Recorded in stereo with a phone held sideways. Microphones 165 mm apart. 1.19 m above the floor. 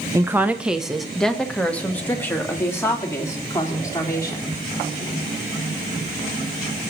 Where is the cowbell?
I don't hear a cowbell.